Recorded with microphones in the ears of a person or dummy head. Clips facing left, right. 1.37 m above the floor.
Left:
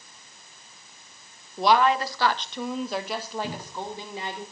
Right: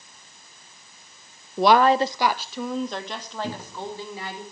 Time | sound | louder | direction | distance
1.6 | a woman speaking | right 4 dB | 60° right (ahead or behind) | 0.6 m
3.4 | a cupboard door | right 1 dB | 10° right (ahead or behind) | 1.3 m